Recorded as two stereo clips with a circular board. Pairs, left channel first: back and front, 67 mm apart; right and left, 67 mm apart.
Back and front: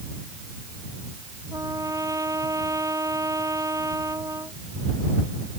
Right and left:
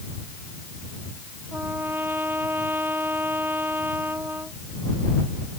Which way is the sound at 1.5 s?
30° left.